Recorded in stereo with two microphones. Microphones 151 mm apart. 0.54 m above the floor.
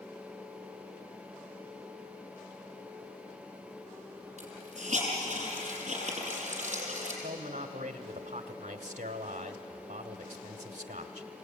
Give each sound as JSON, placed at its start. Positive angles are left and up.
{"t": 4.4, "sound": "a hiss", "side_deg": -50, "distance_m": 7.0}
{"t": 7.2, "sound": "a man speaking", "side_deg": -50, "distance_m": 1.2}